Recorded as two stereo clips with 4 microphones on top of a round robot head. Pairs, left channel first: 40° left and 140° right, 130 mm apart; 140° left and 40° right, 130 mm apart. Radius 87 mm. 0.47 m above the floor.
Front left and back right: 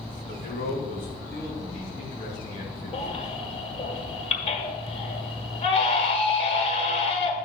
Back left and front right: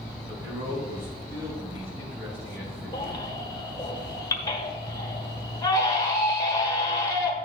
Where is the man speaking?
30° left, 3.5 m.